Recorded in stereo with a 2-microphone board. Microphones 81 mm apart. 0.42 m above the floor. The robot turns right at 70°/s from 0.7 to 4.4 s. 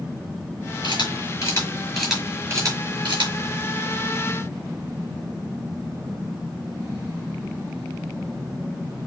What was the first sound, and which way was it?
A camera shutter, 80° left.